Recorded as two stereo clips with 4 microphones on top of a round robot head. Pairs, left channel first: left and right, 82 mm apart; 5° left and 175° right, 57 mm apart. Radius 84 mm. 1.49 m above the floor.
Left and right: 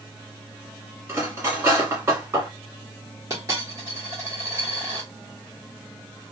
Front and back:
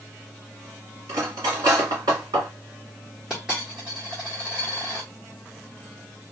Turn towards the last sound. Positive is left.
turn(degrees=-100)